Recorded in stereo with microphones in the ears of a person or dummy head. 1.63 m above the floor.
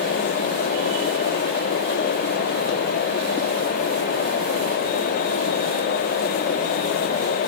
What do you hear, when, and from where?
Only background noise.